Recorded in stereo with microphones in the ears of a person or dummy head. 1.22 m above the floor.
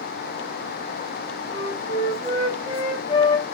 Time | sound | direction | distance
1.5 | a flute | 30° left (ahead or behind) | 1.3 m